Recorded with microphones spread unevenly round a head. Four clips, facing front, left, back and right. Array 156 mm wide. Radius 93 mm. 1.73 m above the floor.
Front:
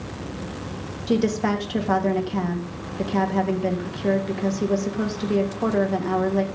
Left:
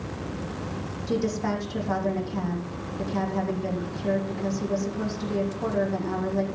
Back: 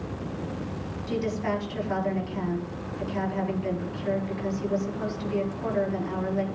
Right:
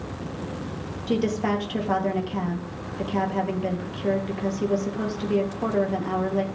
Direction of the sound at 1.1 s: 20° right.